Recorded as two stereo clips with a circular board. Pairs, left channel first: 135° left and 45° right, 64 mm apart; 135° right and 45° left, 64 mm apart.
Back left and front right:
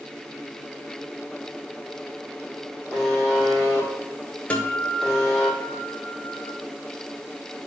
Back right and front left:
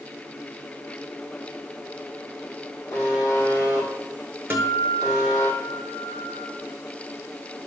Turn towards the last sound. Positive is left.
turn(degrees=85)